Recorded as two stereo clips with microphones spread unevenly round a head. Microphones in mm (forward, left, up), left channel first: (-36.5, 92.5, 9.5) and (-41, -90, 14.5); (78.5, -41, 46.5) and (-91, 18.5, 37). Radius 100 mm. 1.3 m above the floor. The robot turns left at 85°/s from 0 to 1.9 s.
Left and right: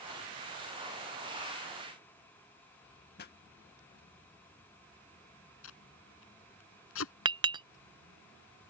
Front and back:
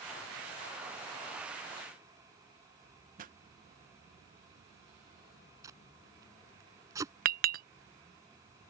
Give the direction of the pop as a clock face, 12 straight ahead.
8 o'clock.